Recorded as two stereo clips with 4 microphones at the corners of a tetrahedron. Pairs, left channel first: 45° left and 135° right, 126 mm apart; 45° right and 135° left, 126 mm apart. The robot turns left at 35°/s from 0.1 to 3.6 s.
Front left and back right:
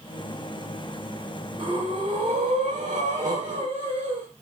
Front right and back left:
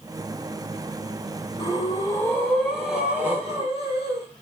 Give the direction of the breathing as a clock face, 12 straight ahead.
3 o'clock.